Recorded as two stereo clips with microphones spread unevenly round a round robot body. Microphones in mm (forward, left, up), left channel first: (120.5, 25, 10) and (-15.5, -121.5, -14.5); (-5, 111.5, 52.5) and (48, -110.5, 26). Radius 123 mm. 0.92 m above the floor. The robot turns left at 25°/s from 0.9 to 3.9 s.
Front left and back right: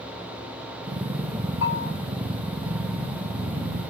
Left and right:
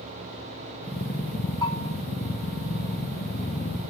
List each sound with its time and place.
1.6 s a bell: 35° left, 4.5 m; by 1.9 s 25° left, 4.5 m